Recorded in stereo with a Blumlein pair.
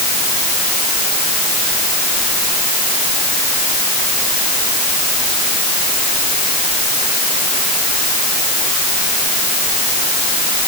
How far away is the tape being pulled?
No tape being pulled in this recording.